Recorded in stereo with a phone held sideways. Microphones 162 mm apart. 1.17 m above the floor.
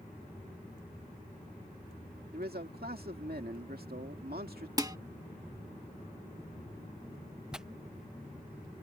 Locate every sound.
2.3 s a man speaking: 75° right (ahead or behind)
4.8 s dishes clattering: 25° right (ahead or behind)
7.5 s tearing paper: 5° right (ahead or behind)